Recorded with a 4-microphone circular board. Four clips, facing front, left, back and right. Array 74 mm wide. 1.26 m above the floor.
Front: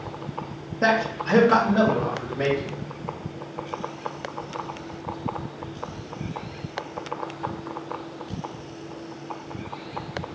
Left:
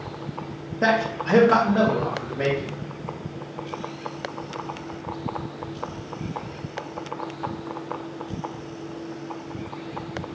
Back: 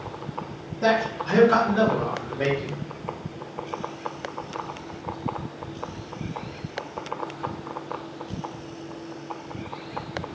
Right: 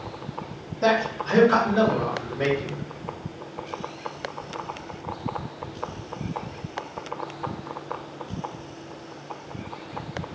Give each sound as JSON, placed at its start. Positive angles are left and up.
{"t": 0.8, "sound": "a man speaking", "azimuth_deg": 55, "distance_m": 1.3}